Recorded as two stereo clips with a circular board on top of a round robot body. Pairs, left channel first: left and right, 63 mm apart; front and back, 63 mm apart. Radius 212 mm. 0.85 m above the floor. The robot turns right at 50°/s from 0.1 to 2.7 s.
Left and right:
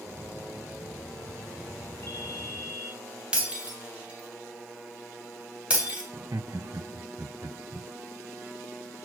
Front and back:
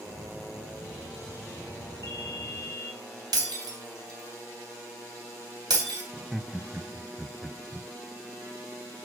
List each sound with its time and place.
2.0 s a ringtone: 135° left, 3 m; by 2.9 s 165° left, 3 m
3.3 s breaking glass: 165° right, 3 m
6.1 s laughter: 95° right, 1.1 m